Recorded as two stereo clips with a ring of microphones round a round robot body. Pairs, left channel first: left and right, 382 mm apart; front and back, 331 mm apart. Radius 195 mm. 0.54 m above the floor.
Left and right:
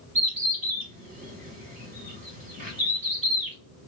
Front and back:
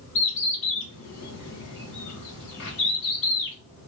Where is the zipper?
I don't hear a zipper.